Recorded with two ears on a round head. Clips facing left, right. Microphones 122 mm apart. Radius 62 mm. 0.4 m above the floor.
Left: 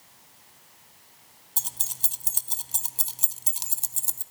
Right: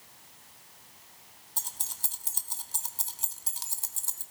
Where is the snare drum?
No snare drum in this recording.